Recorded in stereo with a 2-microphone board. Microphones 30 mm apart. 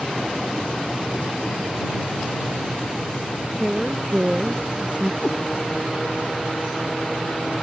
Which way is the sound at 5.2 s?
35° left (ahead or behind).